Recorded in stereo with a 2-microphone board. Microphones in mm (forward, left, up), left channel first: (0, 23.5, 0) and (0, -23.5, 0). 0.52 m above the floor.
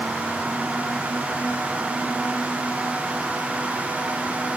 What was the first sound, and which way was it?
Only background noise.